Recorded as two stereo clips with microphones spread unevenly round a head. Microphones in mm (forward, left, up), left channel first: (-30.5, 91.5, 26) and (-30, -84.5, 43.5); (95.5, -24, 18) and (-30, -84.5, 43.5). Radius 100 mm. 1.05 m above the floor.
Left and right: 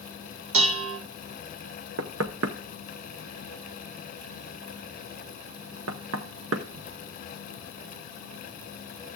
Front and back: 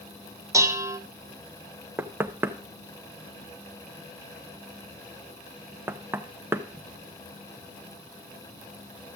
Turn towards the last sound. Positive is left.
turn(degrees=-75)